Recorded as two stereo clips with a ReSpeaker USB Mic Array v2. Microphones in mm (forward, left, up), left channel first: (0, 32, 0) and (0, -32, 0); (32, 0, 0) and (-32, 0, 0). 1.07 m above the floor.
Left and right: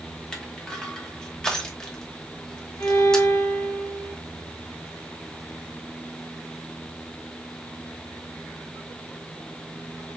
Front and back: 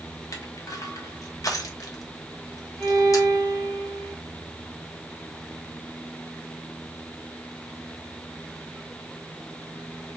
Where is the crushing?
15° left, 1.0 m.